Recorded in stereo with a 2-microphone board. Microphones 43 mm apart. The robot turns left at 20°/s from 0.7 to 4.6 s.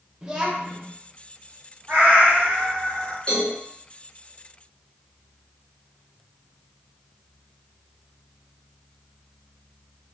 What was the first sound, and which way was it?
A child speaking, 20° right (ahead or behind).